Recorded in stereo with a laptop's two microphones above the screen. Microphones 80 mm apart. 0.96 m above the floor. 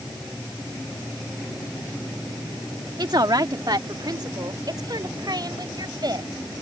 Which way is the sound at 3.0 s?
55° right (ahead or behind).